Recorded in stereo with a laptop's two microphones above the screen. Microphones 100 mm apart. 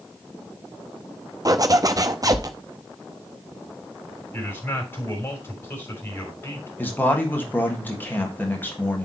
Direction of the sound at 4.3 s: 20° left (ahead or behind).